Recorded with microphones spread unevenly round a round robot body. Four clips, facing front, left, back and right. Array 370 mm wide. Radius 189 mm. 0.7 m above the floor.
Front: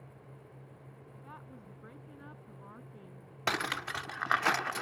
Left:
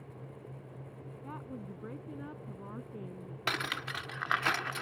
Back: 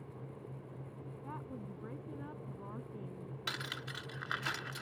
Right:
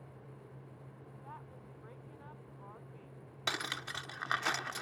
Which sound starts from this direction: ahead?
Cutlery clinking, at 3.5 s.